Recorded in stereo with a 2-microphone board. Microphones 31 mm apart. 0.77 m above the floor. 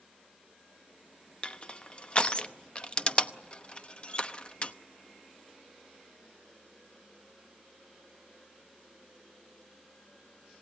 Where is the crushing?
35° left (ahead or behind), 0.8 m.